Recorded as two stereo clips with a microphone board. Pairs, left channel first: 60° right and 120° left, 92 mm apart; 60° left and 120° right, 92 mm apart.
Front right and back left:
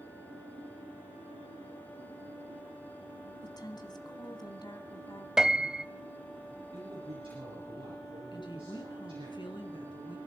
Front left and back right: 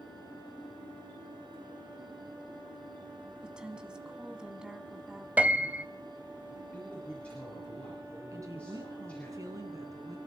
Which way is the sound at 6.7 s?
135° left.